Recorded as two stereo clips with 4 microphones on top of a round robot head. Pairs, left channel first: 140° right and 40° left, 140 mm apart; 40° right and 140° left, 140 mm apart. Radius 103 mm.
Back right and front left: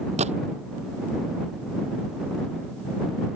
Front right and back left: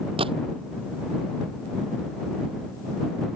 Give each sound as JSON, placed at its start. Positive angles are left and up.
{"t": 0.2, "sound": "a gunshot", "azimuth_deg": 85}